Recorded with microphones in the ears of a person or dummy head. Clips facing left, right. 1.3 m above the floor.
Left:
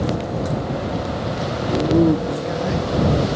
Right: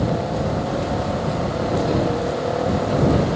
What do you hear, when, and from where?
1.7 s a man speaking: 15° left (ahead or behind); by 2.9 s 85° left